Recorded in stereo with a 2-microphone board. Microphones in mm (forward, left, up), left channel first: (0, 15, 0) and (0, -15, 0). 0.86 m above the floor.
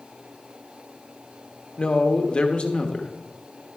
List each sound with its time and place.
1.8 s a man speaking: 35° left (ahead or behind), 1.1 m